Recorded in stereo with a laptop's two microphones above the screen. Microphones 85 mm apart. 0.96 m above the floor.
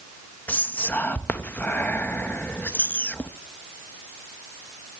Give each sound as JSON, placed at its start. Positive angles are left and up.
{"t": 0.5, "sound": "whispering", "side_deg": 20, "distance_m": 1.3}